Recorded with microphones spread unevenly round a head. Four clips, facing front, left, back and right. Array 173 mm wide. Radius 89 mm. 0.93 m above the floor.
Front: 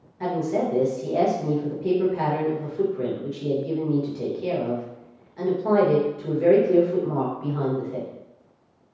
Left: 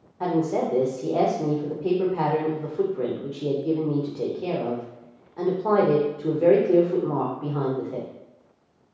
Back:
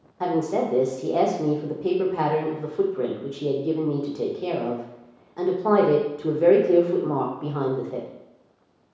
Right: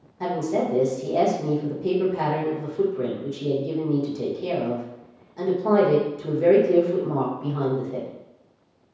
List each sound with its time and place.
0.2 s a woman speaking: 165° left, 1.0 m